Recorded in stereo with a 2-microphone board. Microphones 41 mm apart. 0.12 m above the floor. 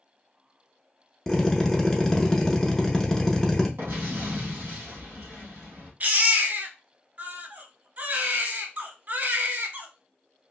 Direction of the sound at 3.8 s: 65° right (ahead or behind).